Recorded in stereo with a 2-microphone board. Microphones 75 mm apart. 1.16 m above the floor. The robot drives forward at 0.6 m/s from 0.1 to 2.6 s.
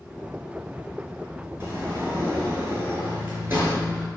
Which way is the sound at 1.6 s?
30° right (ahead or behind).